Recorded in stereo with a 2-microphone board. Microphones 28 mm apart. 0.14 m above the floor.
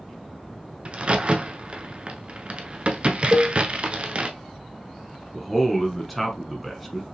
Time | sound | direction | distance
0.8 | a crack | 45° right (ahead or behind) | 0.6 m
3.3 | a cowbell | 30° right (ahead or behind) | 1.2 m
5.3 | a man speaking | centre (ahead or behind) | 1.1 m